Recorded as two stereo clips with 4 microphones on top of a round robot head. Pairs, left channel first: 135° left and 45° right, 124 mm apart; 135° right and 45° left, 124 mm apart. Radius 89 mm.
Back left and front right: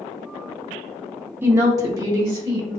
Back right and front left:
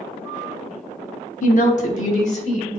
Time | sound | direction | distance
1.4 | a woman speaking | 115° right | 0.6 m